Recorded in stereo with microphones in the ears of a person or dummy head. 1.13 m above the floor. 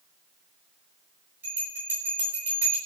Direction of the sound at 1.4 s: 10° right (ahead or behind).